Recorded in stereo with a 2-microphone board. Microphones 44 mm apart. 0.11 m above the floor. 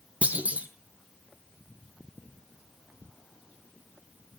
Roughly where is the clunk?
Right.